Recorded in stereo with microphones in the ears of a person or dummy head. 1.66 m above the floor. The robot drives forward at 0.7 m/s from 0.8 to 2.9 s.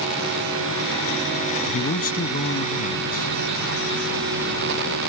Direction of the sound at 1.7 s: 45° left (ahead or behind).